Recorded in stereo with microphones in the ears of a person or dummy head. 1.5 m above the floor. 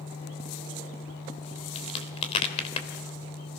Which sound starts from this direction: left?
A crack, at 1.8 s.